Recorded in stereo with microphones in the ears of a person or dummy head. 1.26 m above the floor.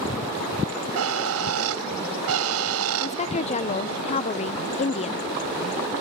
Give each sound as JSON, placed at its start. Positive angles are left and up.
{"t": 0.7, "sound": "a bird", "side_deg": -75}
{"t": 3.0, "sound": "a woman speaking", "side_deg": 35}